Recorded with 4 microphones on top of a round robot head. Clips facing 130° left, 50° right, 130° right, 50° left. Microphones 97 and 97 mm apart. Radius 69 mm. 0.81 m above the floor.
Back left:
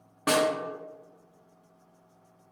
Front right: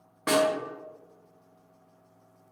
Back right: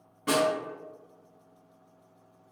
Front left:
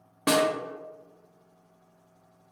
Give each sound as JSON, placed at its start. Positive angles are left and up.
{"t": 0.3, "sound": "a snare drum", "azimuth_deg": 45, "distance_m": 0.7}